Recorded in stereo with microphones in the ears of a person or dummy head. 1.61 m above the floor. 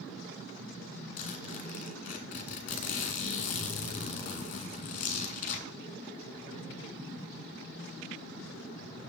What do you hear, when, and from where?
1.2 s a zipper: 45° left (ahead or behind), 1.7 m